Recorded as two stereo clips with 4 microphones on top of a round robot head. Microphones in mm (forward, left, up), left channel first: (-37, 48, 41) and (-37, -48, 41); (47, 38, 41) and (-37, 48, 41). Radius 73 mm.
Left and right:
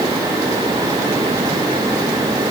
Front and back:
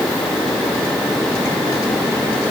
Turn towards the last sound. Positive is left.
No sound to turn to.